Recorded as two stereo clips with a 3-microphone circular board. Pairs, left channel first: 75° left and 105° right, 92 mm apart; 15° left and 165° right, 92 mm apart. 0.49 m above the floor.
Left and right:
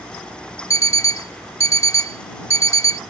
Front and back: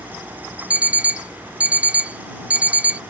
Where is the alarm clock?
120° left.